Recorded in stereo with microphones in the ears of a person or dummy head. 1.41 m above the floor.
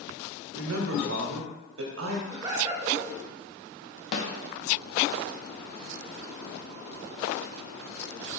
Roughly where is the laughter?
Right.